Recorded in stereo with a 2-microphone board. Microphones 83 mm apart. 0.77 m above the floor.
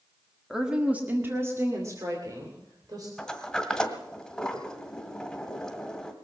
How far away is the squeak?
I don't hear a squeak.